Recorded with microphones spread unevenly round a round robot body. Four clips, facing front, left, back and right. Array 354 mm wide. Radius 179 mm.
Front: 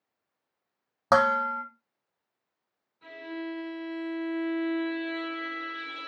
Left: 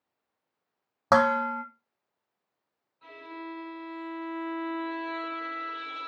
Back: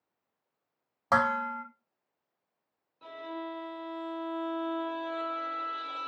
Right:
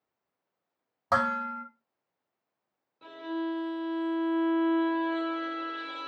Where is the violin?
105° right, 1.4 m.